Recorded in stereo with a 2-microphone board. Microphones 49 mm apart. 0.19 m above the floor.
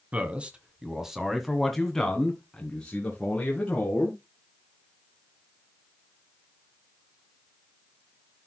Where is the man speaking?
25° right (ahead or behind), 1.4 m; by 4.2 s 30° left (ahead or behind), 3 m.